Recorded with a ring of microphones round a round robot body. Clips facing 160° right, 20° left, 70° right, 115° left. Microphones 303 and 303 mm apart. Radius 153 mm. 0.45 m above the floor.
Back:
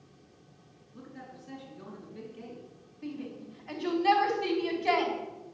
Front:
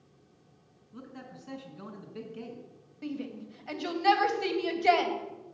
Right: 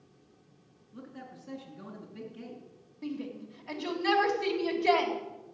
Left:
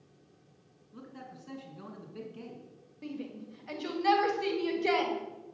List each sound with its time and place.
0.9 s a man speaking: 35° left, 4.5 m
3.0 s a shout: 25° left, 3.5 m